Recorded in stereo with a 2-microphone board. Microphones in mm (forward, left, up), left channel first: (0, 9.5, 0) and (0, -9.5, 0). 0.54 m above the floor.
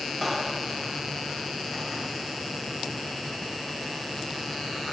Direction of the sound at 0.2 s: 10° right (ahead or behind).